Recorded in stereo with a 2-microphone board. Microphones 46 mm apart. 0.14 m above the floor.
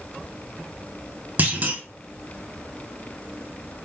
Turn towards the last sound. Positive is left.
turn(degrees=-40)  # may be behind; listen again after turning